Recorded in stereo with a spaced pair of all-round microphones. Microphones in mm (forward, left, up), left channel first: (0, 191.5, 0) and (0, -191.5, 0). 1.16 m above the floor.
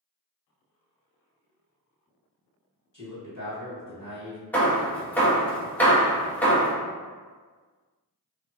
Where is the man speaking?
60° left (ahead or behind), 1.6 m.